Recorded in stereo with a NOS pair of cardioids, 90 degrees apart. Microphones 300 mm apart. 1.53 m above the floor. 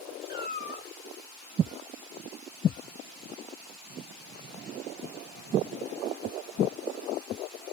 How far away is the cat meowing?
About 3.5 m.